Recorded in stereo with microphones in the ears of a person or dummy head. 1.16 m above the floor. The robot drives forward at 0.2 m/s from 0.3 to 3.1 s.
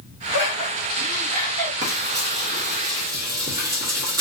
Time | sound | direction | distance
0.3 | laughter | 55° right (ahead or behind) | 2 m
1.8 | frying | 55° right (ahead or behind) | 1.0 m